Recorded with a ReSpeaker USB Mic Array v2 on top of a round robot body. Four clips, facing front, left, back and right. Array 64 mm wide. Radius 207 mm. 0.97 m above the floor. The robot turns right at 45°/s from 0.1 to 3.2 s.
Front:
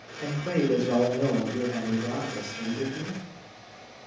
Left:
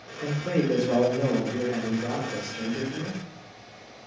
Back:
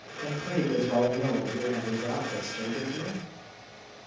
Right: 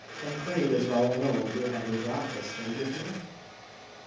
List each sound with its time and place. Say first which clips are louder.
0.2 s a man speaking: left 3 dB, front 3 dB; 20° left, 1.2 m; by 3.2 s 155° left, 1.2 m